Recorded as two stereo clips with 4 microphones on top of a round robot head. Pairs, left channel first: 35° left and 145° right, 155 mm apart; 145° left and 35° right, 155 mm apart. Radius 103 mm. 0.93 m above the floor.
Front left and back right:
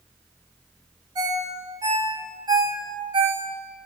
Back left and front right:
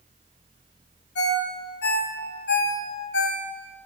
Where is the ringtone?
150° left, 1.2 m.